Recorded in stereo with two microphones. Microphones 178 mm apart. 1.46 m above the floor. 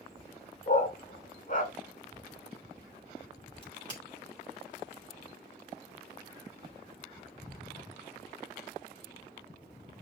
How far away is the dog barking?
About 1.8 m.